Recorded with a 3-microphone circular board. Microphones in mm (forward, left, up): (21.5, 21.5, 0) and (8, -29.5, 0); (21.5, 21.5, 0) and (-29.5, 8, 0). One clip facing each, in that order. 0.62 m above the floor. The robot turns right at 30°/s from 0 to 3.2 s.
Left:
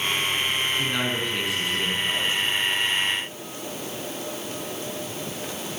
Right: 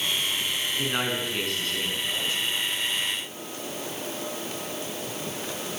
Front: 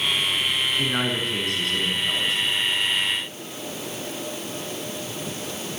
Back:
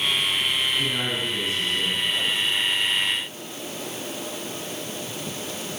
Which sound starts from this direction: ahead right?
A man speaking, at 0.8 s.